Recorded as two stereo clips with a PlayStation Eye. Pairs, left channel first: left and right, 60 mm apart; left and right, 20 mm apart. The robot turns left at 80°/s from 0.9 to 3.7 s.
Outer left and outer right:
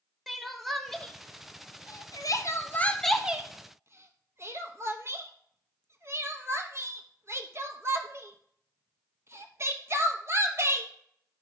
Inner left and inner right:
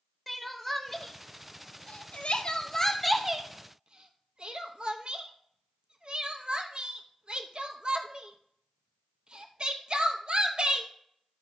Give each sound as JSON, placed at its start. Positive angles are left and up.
{"t": 0.3, "sound": "crying", "side_deg": 5, "distance_m": 0.8}